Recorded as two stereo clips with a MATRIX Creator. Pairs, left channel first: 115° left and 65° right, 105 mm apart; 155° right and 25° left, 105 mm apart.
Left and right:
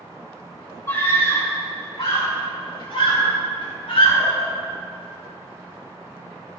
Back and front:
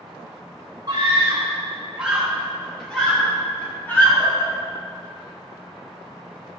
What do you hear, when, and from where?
0.9 s a scream: 60° left, 2 m; by 4.5 s 140° left, 3.5 m